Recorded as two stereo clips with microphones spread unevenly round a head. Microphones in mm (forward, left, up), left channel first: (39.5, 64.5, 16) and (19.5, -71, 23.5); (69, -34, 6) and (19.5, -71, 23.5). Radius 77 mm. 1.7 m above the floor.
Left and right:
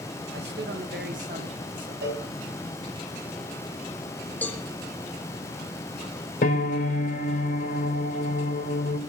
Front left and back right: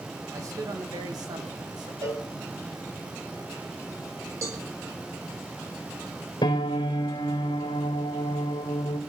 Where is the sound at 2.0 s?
130° right, 4.5 m.